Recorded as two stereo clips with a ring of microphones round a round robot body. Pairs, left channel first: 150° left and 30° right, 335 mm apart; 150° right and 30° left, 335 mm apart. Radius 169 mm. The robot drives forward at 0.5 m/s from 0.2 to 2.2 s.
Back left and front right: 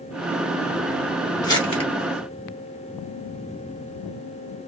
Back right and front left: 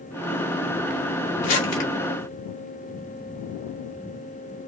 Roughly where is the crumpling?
Behind right.